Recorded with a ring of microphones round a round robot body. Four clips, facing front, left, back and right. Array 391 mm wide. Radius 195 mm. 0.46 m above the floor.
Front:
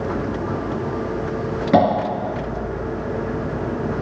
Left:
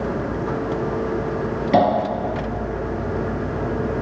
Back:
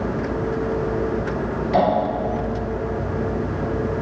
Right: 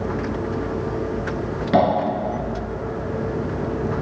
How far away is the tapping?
About 2.5 m.